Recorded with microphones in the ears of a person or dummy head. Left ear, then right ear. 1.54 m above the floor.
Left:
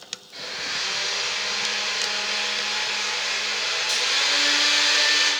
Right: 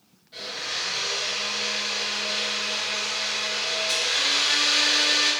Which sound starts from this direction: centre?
A blender, at 0.3 s.